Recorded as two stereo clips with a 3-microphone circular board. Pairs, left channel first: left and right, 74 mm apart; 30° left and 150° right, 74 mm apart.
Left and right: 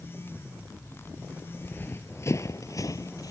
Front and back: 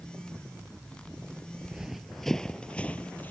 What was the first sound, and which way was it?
Running footsteps, 140° left.